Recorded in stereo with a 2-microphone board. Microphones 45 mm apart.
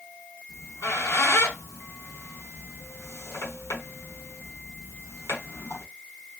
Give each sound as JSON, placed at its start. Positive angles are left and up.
{"t": 0.5, "sound": "a squeak", "side_deg": 75, "distance_m": 1.3}